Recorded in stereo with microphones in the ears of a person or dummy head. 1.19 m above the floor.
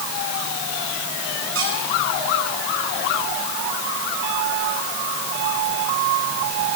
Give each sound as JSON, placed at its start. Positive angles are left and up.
{"t": 1.6, "sound": "a squeak", "side_deg": -80, "distance_m": 7.5}